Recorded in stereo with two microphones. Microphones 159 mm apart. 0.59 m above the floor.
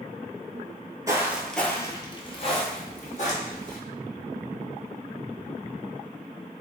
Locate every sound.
1.1 s footsteps: 20° right (ahead or behind), 0.6 m; by 3.8 s 60° left (ahead or behind), 1.4 m